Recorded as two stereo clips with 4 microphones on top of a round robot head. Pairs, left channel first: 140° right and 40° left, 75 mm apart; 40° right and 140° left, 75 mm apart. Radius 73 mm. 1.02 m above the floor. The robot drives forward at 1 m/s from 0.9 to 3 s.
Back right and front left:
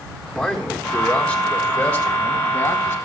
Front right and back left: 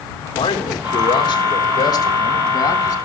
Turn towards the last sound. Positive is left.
turn(degrees=-95)